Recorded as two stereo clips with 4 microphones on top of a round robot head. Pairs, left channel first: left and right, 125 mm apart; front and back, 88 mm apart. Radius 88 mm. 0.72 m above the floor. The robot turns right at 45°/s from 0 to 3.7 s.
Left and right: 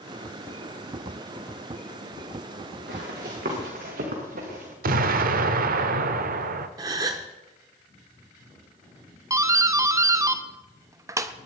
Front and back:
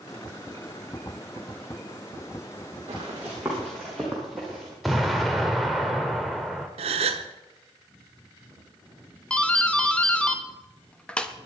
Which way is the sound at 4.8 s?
90° right.